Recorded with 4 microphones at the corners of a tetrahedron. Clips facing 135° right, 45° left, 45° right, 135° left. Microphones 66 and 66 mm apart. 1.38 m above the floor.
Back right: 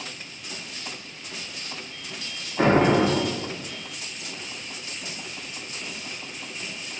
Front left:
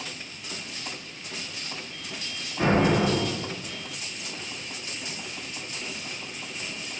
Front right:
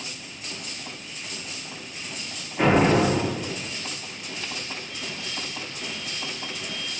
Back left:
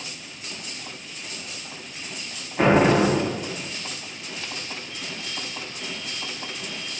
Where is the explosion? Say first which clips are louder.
Back right 3 dB, back left 2 dB; 160° right, 1.3 m.